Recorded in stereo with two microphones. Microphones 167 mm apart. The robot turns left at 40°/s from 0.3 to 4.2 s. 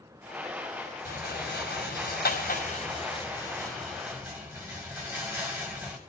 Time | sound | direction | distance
1.1 | a rattle | 65° left (ahead or behind) | 5.5 m